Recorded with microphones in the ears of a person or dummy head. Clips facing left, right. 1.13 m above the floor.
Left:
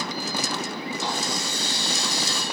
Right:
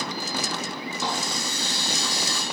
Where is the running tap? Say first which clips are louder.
Right 1 dB; 80° right, 5 m.